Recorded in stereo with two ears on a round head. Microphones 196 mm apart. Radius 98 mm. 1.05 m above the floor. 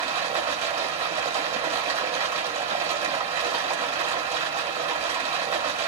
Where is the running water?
30° right (ahead or behind), 1.4 m.